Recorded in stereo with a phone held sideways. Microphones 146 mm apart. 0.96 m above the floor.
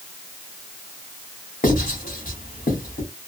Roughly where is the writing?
Left.